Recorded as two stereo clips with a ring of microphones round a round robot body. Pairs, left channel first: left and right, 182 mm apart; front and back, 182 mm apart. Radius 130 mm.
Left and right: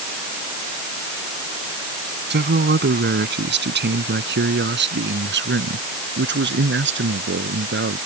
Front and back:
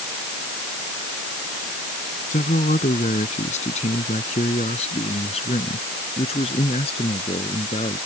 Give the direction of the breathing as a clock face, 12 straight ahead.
No breathing in this recording.